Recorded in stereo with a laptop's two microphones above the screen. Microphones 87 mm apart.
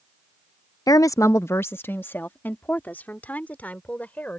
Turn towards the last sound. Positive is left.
turn(degrees=20)  # may be behind; listen again after turning